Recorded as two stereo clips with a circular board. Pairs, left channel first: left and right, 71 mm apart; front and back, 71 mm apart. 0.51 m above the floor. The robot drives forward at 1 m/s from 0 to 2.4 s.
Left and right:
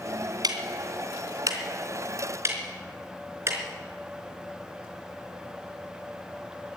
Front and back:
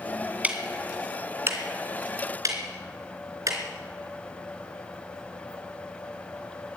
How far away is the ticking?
About 2.5 m.